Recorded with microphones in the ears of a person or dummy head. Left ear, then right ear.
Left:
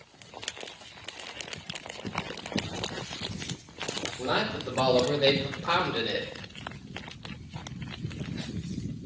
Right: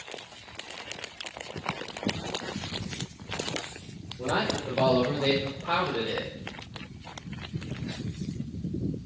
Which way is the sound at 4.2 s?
50° left (ahead or behind).